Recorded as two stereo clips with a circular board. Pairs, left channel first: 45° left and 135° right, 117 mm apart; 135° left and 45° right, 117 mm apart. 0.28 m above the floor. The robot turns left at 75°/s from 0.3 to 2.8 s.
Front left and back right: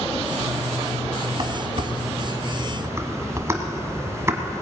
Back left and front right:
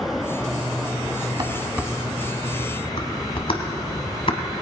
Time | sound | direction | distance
1.4 | dishes clattering | 90° right | 1.2 m